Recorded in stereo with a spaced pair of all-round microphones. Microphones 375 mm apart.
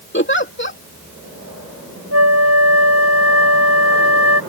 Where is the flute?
70° left (ahead or behind).